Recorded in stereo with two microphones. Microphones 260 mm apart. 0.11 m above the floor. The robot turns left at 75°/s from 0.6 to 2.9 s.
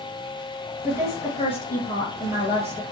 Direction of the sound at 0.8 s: 90° left.